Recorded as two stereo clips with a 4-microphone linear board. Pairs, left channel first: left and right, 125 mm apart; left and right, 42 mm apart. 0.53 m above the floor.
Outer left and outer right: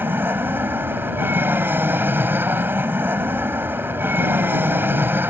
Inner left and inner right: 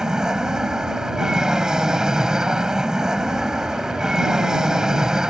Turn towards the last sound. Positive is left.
turn(degrees=-15)  # may be behind; listen again after turning